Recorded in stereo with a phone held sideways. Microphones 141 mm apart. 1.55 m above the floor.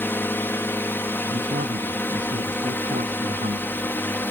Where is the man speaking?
65° right (ahead or behind).